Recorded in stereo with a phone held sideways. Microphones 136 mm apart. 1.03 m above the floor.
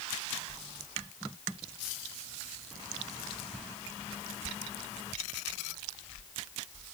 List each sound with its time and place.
Only background noise.